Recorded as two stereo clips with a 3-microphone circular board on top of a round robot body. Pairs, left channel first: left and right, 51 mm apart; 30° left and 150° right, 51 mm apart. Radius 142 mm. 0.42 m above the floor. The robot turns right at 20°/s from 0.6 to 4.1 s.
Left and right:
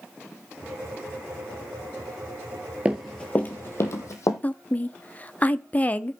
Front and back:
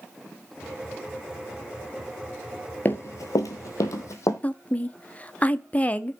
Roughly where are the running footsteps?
Ahead right.